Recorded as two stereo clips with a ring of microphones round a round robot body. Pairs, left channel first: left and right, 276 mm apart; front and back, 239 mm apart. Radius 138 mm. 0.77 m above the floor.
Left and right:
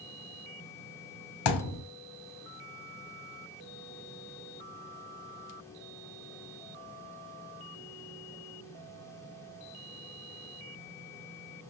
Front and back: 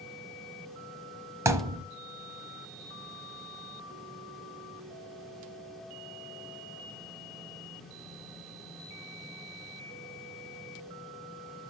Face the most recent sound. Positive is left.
turn(degrees=100)